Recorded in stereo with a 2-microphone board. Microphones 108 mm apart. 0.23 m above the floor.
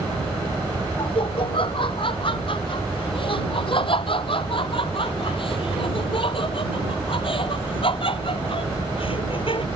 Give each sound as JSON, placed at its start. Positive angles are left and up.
{"t": 1.0, "sound": "laughter", "side_deg": 55}